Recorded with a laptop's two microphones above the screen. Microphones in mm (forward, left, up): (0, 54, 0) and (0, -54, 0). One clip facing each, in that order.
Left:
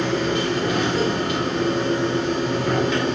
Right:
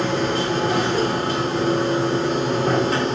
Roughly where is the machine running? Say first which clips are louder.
Even; right.